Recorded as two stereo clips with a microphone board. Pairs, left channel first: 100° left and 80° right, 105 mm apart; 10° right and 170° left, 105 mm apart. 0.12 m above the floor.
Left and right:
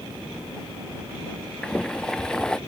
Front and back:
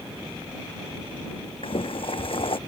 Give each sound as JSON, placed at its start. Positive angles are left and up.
{"t": 1.6, "sound": "boiling", "azimuth_deg": 20}